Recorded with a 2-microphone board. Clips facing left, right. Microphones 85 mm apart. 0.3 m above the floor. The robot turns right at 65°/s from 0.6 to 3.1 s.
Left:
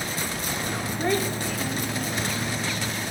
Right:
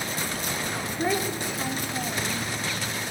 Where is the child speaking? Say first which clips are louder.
Left 1 dB; 5° right (ahead or behind), 0.8 m; by 2.5 s 25° right (ahead or behind), 0.8 m.